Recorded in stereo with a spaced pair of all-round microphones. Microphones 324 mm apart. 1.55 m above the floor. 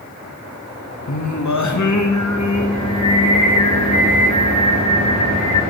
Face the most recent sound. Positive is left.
turn(degrees=60)  # may be behind; listen again after turning